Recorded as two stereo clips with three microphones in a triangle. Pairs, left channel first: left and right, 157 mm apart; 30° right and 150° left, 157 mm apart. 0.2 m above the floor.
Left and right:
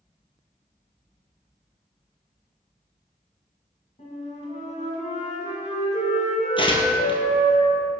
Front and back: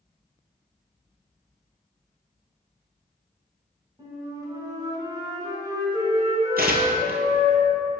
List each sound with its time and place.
4.0 s a flute: 95° left, 2.0 m
6.6 s tearing paper: 145° left, 1.0 m